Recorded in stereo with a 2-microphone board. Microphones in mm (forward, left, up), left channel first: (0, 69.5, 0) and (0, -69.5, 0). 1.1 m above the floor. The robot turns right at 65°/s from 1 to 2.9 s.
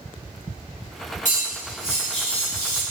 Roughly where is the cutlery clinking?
Ahead right.